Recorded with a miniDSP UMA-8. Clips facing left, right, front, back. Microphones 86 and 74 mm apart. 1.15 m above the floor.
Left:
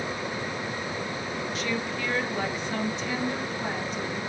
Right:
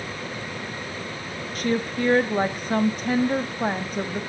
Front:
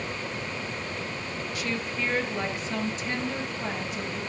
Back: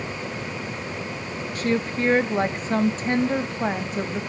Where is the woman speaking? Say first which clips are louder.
Right 9 dB, back 9 dB; 130° right, 1.8 m.